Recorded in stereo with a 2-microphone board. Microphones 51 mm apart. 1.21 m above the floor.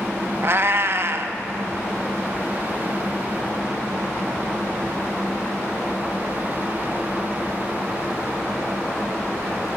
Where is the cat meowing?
45° right (ahead or behind), 0.7 m.